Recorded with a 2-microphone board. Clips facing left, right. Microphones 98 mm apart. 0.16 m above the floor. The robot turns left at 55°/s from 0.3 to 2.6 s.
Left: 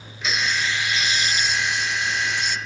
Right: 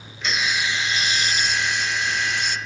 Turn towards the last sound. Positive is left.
turn(degrees=-125)